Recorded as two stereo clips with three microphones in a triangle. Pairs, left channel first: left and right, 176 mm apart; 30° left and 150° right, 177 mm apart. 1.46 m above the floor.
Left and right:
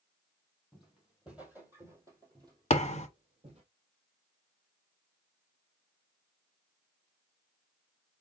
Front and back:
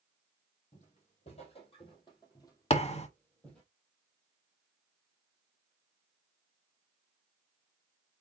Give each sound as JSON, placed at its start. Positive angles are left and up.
{"t": 0.7, "sound": "footsteps", "azimuth_deg": 0, "distance_m": 2.5}
{"t": 2.7, "sound": "a thud", "azimuth_deg": 65, "distance_m": 1.1}